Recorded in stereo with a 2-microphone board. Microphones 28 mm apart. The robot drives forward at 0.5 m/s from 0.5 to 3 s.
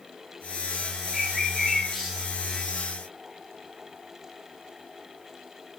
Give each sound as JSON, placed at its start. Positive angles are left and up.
{"t": 1.1, "sound": "a bird", "side_deg": 10, "distance_m": 2.5}